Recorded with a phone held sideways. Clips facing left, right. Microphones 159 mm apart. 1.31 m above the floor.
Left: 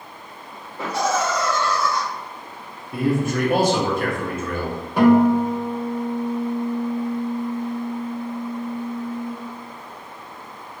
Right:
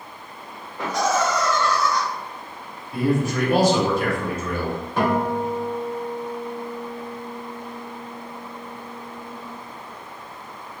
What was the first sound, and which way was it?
Laughter, 30° left (ahead or behind).